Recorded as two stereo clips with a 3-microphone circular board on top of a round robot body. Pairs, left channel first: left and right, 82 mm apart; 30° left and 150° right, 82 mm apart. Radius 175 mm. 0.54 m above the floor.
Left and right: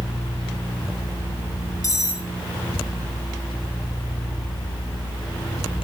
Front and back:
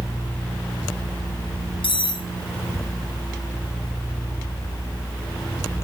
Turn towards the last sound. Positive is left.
turn(degrees=40)